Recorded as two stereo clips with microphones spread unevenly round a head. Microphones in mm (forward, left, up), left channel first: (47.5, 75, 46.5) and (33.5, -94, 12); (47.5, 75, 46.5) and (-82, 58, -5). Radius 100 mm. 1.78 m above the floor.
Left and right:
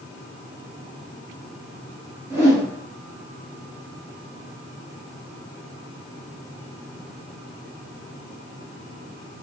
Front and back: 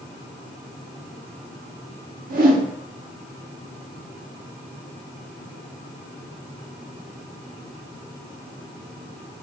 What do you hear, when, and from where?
2.3 s a whoosh: 175° left, 0.6 m